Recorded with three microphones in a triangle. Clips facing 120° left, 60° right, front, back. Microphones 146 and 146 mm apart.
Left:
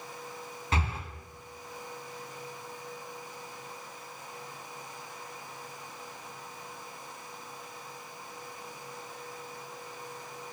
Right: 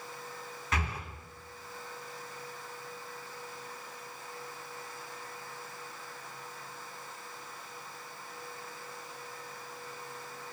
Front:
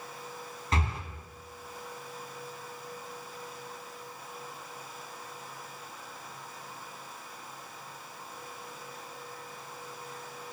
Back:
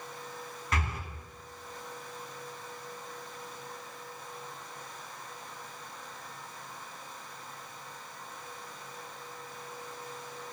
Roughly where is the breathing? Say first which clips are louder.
Left 2 dB, front 2 dB; ahead left.